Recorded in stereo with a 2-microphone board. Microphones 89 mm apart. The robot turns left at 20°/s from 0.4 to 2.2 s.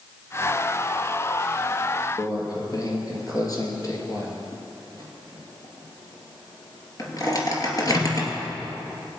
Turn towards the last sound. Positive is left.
turn(degrees=45)  # may be behind; listen again after turning